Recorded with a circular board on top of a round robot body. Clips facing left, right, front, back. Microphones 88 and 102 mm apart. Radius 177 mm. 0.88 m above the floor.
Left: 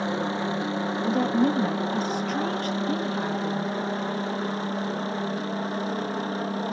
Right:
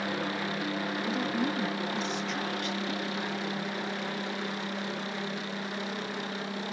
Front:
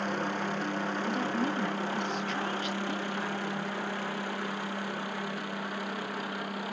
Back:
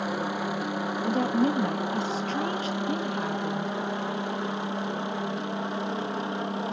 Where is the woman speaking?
130° left.